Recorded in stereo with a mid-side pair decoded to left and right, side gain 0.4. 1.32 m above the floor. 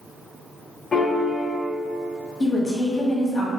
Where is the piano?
35° left, 0.7 m.